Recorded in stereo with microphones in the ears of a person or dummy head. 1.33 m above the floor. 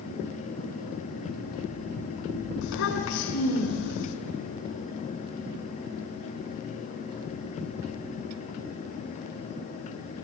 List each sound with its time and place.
2.6 s a child speaking: 75° left (ahead or behind), 3.5 m